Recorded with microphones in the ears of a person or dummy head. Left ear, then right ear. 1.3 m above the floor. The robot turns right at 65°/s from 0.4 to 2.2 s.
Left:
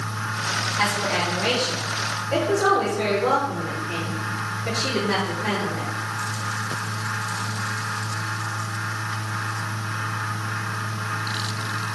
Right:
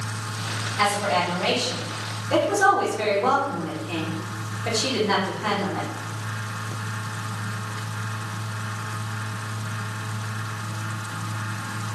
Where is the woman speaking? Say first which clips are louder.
Right 4 dB; 30° left (ahead or behind), 2.5 m; by 5.9 s 60° right (ahead or behind), 2.5 m.